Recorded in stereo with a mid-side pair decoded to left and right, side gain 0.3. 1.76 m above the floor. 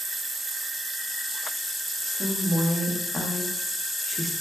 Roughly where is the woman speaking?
Ahead left.